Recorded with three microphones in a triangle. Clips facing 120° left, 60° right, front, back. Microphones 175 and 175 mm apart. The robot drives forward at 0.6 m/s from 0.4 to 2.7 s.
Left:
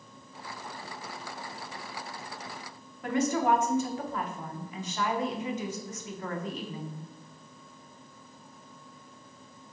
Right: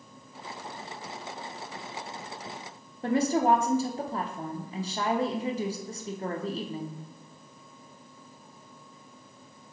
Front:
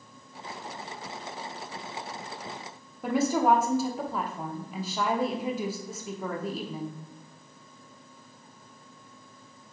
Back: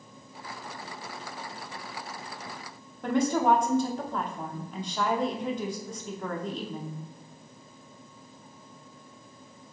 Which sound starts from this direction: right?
A woman speaking, at 3.0 s.